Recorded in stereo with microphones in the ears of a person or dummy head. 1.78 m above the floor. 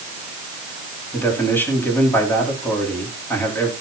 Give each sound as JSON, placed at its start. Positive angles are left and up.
{"t": 1.1, "sound": "a man speaking", "side_deg": 10, "distance_m": 5.0}